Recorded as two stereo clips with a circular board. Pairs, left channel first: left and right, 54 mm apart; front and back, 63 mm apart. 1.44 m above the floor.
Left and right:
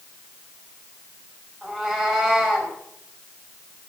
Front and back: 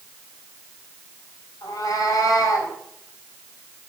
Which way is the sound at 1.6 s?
5° left.